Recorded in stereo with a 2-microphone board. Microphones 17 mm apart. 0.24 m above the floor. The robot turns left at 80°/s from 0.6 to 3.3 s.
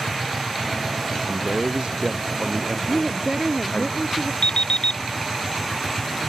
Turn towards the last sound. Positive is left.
turn(degrees=70)  # may be behind; listen again after turning